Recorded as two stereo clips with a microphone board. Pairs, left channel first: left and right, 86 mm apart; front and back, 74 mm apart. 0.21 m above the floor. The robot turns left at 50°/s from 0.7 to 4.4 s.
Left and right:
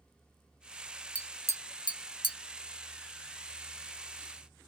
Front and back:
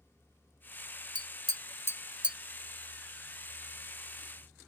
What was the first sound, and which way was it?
Tapping, 165° left.